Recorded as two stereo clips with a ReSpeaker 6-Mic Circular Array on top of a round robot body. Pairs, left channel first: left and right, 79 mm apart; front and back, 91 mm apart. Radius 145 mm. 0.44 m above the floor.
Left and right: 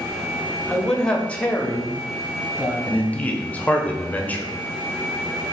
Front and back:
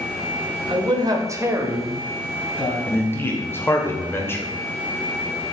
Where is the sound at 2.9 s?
35° left, 0.9 m.